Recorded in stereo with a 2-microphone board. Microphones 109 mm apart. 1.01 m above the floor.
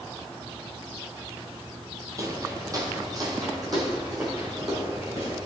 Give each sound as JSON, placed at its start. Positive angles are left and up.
{"t": 2.2, "sound": "footsteps", "side_deg": -30, "distance_m": 1.9}